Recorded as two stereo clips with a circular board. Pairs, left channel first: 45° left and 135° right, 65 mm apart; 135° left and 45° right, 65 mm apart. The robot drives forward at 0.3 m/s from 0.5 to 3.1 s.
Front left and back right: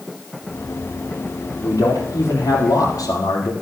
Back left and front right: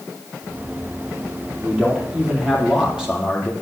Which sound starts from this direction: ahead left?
A man speaking, at 1.6 s.